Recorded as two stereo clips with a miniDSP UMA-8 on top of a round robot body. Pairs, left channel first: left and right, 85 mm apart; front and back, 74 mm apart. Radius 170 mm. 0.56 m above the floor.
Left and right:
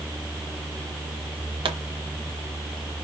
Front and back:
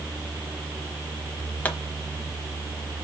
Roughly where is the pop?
Right.